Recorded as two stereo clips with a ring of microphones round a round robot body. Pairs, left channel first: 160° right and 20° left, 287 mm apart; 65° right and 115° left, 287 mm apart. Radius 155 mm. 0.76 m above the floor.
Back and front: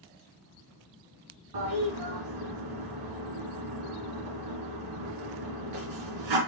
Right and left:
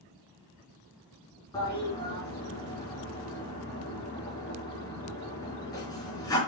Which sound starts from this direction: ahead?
A toilet flushing, at 1.5 s.